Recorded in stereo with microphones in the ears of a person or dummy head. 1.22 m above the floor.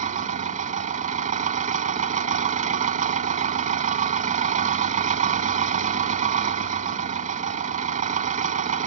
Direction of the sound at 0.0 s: 50° right (ahead or behind).